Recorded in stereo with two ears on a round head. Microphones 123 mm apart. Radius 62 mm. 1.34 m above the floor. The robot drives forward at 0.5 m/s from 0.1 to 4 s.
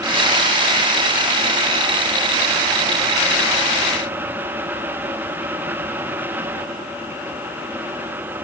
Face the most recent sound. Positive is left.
No sound to turn to.